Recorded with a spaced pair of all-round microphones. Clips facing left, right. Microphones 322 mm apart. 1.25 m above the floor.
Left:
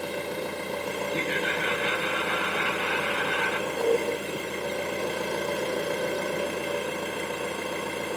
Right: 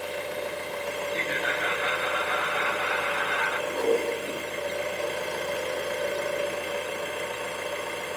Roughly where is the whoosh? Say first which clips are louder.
Even; right.